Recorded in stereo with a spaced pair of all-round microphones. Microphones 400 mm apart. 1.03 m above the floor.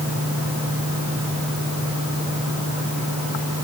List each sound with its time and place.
Only background noise.